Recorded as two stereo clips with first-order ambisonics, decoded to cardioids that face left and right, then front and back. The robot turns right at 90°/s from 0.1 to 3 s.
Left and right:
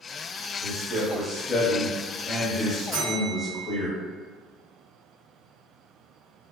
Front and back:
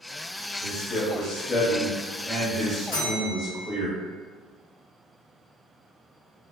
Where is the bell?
Straight ahead, 1.4 m; by 3.7 s 5° left, 1.4 m.